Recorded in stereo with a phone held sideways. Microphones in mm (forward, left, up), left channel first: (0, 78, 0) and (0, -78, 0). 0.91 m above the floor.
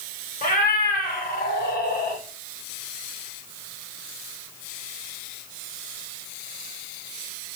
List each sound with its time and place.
0.4 s a cat meowing: 60° left (ahead or behind), 1.4 m; by 2.2 s 75° left (ahead or behind), 1.4 m